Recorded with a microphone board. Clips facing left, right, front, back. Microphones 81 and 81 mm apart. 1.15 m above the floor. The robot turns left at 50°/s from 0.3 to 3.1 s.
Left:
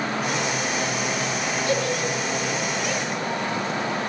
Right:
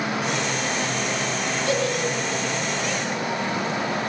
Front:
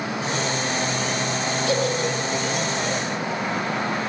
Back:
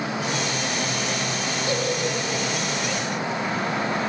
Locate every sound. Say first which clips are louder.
1.7 s a giggle: right 1 dB, front 2 dB; 115° right, 2.5 m; by 2.5 s 160° right, 2.5 m